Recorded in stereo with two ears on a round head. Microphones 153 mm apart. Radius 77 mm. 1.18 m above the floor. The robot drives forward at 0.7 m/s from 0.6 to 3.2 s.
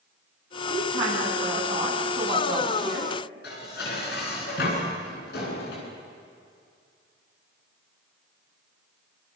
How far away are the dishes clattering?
About 9.5 m.